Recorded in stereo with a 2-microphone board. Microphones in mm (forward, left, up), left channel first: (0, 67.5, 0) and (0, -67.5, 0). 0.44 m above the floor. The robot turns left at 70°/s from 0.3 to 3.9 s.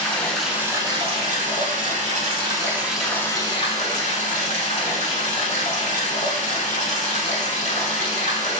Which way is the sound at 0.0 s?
10° left.